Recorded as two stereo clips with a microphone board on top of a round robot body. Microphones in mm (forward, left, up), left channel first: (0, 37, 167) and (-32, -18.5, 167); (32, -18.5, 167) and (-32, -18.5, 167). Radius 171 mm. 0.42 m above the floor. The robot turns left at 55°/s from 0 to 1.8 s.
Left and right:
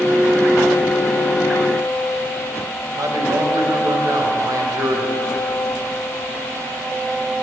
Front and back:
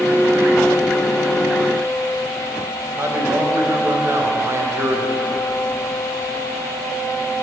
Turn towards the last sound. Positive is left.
turn(degrees=-135)